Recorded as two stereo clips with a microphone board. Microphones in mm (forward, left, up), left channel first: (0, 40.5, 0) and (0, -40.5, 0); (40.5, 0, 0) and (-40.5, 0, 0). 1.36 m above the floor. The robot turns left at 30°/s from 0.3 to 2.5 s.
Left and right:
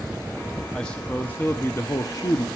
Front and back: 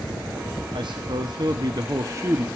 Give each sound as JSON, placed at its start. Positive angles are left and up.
{"t": 0.7, "sound": "a man speaking", "azimuth_deg": 170, "distance_m": 0.8}